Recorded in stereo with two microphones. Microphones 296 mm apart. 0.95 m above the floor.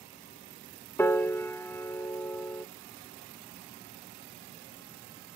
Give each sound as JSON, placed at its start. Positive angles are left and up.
{"t": 1.0, "sound": "a piano", "side_deg": 5, "distance_m": 1.0}